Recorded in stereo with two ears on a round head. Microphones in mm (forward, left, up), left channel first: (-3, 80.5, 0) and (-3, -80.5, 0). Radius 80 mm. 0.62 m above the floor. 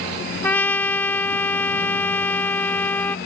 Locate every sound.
0.4 s a trumpet: 10° left (ahead or behind)